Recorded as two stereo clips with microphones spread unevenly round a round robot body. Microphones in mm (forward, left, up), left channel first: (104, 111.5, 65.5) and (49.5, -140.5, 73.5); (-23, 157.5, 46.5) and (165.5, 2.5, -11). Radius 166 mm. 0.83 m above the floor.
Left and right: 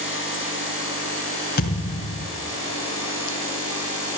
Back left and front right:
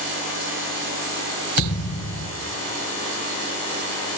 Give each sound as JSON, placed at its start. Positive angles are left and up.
{"t": 1.6, "sound": "a thud", "azimuth_deg": 140, "distance_m": 2.0}